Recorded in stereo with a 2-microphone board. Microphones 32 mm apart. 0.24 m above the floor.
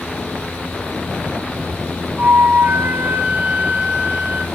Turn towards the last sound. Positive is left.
turn(degrees=-60)  # may be behind; listen again after turning